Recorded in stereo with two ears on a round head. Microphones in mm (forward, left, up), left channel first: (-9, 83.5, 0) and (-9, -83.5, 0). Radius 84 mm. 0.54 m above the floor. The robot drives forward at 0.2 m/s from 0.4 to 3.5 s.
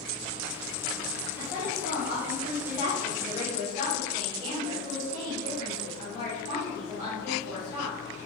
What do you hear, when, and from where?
1.4 s a woman speaking: 35° right (ahead or behind), 1.2 m; by 8.0 s 30° right (ahead or behind), 1.3 m